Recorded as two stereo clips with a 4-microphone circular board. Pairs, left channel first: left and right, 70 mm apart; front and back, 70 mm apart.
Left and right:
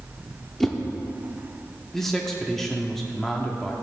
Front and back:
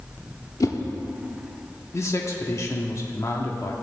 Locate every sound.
0.6 s a whoosh: 5° left, 0.9 m
1.9 s a man speaking: 5° left, 1.0 m